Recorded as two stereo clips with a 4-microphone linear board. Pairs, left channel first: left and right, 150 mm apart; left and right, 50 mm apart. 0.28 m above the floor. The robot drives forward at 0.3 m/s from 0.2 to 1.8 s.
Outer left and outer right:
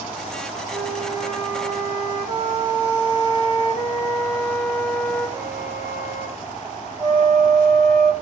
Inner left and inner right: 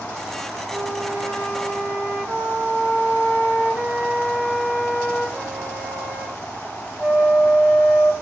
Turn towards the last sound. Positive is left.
turn(degrees=-30)  # may be behind; listen again after turning